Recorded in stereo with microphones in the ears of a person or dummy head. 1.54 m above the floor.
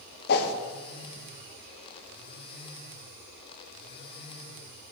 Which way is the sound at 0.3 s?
55° left (ahead or behind).